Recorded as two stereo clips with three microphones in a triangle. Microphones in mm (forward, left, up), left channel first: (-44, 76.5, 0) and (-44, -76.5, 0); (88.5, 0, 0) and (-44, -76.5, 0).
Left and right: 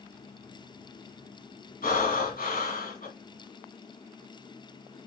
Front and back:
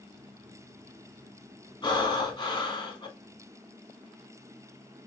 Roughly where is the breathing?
Left.